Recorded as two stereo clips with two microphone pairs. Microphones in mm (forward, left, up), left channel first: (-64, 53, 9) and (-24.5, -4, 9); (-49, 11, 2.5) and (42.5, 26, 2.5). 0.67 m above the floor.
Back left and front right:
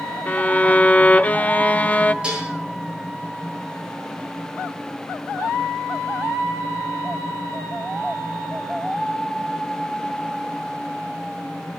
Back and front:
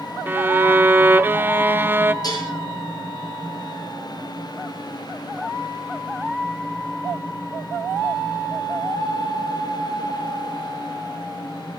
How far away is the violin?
About 0.8 m.